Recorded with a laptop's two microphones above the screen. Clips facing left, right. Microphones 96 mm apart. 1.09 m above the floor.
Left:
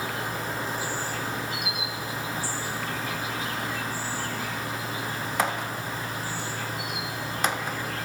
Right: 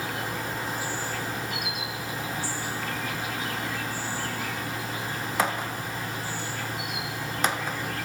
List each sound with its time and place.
0.0 s an insect: 35° left (ahead or behind), 2.5 m